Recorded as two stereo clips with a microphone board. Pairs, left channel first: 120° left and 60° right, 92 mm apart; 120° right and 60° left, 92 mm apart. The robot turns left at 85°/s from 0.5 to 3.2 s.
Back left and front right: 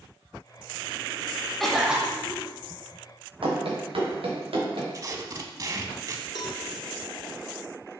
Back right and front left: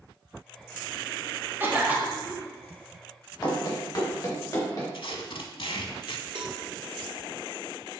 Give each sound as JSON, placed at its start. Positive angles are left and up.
{"t": 1.6, "sound": "a cough", "azimuth_deg": 40, "distance_m": 1.1}
{"t": 3.4, "sound": "running footsteps", "azimuth_deg": -75, "distance_m": 2.5}
{"t": 4.9, "sound": "tape being pulled", "azimuth_deg": -110, "distance_m": 0.7}
{"t": 6.3, "sound": "a cowbell", "azimuth_deg": 85, "distance_m": 0.8}